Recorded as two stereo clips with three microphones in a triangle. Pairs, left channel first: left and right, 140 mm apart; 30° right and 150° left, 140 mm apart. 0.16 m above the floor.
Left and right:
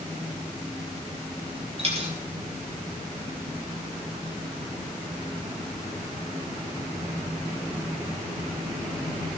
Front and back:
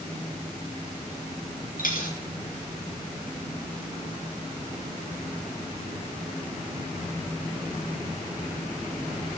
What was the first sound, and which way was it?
A dropped coin, 45° right.